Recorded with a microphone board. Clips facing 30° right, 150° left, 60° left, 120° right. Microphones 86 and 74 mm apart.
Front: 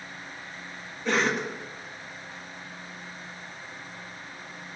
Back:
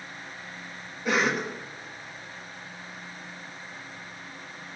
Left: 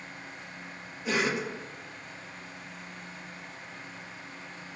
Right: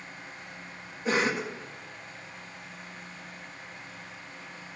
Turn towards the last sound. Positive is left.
turn(degrees=-130)